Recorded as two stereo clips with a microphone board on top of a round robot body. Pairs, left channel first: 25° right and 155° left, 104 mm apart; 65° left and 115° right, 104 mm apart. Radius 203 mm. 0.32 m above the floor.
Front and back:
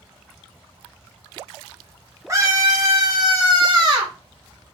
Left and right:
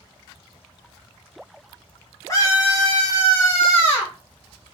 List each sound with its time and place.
2.3 s a scream: 110° left, 1.8 m; by 4.1 s 125° left, 2.5 m